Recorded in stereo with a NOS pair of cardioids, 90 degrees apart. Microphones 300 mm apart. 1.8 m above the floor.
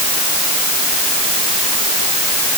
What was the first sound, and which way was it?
Only background noise.